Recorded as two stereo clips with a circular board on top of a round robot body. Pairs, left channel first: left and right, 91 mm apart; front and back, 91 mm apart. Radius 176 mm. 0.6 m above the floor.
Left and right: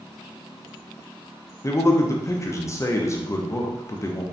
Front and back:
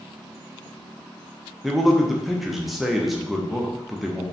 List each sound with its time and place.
1.6 s a man speaking: 95° left, 0.6 m